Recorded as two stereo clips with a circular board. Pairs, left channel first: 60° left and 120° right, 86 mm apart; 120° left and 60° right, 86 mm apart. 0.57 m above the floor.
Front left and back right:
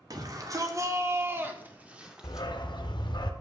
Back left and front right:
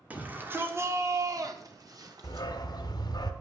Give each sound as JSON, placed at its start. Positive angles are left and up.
{"t": 0.1, "sound": "a shout", "azimuth_deg": -125, "distance_m": 1.7}
{"t": 2.2, "sound": "a dog barking", "azimuth_deg": 85, "distance_m": 1.3}